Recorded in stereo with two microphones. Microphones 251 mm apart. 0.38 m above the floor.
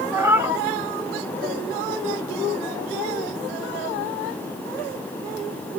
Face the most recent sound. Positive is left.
turn(degrees=-10)  # may be behind; listen again after turning